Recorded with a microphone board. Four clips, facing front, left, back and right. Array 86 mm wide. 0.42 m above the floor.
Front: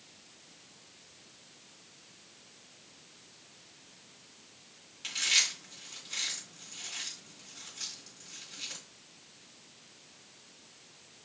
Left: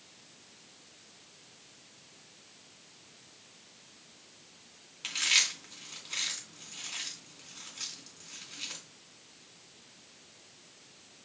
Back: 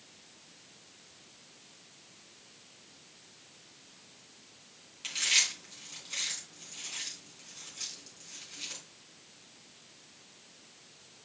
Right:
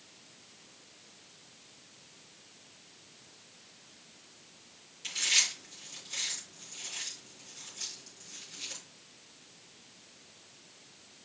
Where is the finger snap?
I don't hear a finger snap.